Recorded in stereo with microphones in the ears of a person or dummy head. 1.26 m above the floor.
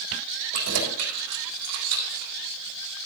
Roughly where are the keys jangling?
Right.